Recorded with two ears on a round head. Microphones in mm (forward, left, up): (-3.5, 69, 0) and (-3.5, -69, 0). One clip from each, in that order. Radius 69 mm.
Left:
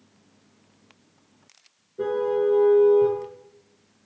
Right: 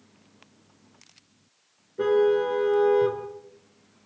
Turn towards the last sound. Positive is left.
turn(degrees=-60)  # may be behind; listen again after turning